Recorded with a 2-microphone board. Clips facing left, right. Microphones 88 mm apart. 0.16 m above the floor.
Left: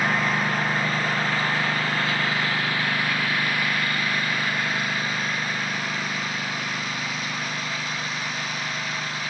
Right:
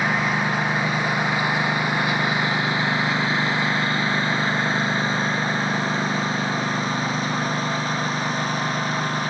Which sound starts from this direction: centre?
A lawn mower, at 0.0 s.